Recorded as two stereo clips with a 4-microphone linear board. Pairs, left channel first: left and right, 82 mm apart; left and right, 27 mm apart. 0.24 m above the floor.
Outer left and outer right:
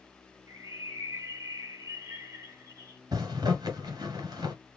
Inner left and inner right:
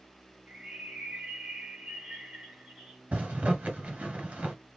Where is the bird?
45° right (ahead or behind), 1.6 m.